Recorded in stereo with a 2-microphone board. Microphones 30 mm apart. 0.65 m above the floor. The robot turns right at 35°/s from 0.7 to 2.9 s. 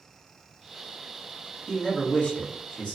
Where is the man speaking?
30° left (ahead or behind), 1.2 m; by 3.0 s 50° left (ahead or behind), 1.2 m.